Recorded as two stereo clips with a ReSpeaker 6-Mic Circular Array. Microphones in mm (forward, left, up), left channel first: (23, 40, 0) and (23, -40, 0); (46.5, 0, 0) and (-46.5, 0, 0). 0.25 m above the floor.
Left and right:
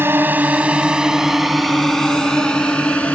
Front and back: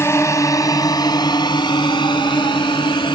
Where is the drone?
45° right; by 3.1 s 20° left.